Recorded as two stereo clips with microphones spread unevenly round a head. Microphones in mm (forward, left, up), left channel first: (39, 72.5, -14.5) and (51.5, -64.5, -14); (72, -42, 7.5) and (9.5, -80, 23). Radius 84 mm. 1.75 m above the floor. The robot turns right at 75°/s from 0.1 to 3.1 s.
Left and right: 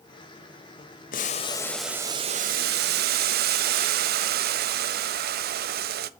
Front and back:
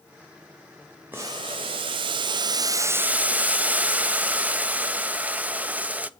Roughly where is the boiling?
Behind left.